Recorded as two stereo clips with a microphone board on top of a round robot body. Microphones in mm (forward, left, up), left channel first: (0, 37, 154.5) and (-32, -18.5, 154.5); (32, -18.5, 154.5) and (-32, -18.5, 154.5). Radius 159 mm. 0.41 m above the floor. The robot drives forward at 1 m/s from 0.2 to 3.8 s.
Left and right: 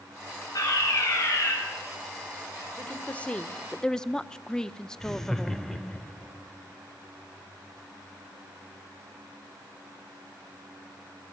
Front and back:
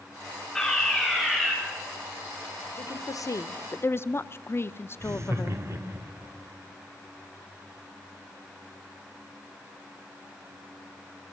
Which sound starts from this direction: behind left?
Laughter, at 5.0 s.